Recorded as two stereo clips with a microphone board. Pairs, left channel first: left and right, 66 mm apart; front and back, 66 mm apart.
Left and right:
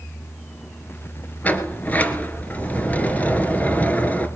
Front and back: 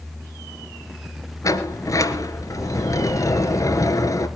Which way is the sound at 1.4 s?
25° left.